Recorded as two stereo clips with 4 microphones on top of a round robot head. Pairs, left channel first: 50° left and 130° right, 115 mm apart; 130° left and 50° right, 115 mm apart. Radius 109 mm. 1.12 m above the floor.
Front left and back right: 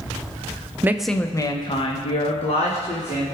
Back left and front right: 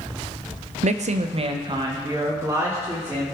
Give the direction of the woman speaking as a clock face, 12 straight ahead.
2 o'clock.